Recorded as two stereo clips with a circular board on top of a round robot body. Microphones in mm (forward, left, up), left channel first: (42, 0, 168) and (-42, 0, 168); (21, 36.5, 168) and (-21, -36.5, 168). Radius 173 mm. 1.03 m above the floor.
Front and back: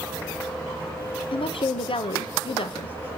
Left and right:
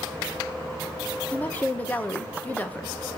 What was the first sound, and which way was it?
A woman speaking, 10° right.